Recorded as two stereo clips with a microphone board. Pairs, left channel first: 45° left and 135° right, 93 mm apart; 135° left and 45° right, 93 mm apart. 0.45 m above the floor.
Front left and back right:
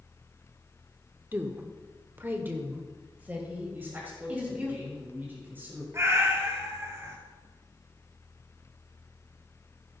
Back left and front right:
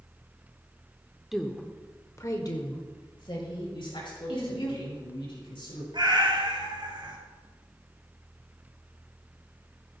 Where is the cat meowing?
75° right, 1.4 m.